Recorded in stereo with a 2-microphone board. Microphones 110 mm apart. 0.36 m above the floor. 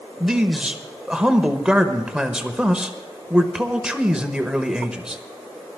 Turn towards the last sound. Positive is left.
turn(degrees=-10)  # may be behind; listen again after turning